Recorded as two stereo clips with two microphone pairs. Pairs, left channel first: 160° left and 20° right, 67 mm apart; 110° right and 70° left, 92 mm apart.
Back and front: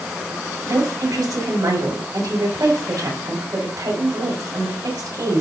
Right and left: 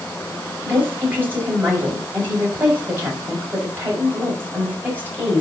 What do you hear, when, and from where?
0.7 s a woman speaking: straight ahead, 6 m